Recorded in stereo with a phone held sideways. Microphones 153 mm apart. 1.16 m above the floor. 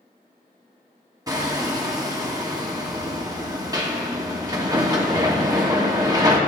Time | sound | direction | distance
1.3 | hammering | 25° right (ahead or behind) | 1.1 m